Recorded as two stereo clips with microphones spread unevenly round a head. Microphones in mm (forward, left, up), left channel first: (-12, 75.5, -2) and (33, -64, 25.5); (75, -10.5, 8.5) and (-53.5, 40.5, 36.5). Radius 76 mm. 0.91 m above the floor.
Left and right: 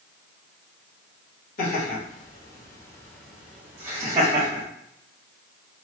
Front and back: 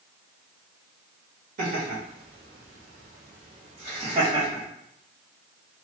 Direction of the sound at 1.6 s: 135° left.